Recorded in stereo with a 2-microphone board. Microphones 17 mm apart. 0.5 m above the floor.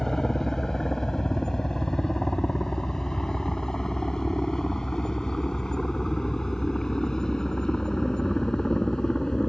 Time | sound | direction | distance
0.0 | a helicopter | 25° left (ahead or behind) | ?